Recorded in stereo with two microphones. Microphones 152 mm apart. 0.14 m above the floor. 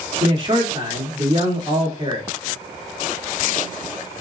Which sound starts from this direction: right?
A man speaking, at 0.2 s.